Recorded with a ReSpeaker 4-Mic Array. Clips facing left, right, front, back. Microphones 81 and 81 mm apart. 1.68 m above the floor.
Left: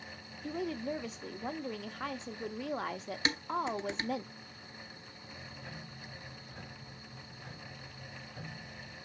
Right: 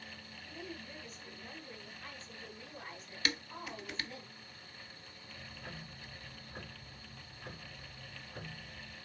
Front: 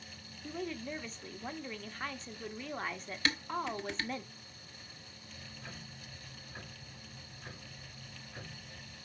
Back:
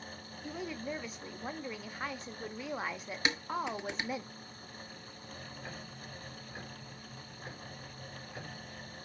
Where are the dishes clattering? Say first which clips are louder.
Left 7 dB, back 1 dB; 125° left, 1.0 m.